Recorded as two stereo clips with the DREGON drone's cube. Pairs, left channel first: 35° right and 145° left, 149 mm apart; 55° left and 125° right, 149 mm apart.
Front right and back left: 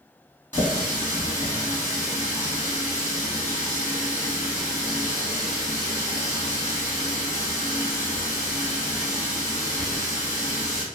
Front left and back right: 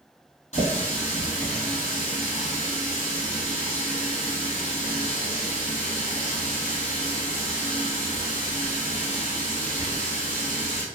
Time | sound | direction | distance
0.5 | a running tap | 40° left | 1.5 m